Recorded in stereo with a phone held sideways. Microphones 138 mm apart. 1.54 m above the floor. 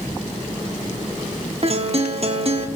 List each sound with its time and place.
1.6 s a guitar: 45° right (ahead or behind), 1.3 m